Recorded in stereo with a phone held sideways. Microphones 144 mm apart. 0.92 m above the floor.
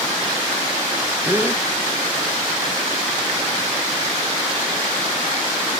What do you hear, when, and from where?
1.2 s a gasp: 15° right (ahead or behind), 0.8 m